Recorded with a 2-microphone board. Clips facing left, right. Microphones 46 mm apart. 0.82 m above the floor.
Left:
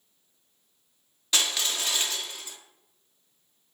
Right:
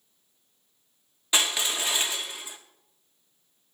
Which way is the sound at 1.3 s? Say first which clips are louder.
Right 2 dB; 15° right (ahead or behind).